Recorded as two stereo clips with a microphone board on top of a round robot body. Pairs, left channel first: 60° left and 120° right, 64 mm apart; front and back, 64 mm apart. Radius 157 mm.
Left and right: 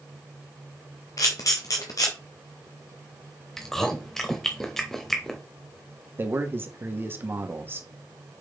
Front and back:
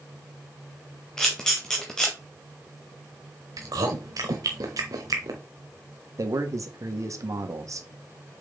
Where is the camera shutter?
85° left, 0.5 m.